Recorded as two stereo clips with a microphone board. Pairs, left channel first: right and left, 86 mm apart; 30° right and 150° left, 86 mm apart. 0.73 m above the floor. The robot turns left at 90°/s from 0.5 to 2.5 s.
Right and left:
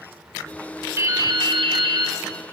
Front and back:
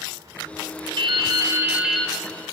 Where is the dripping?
150° left, 3 m; by 2.2 s 40° left, 3 m.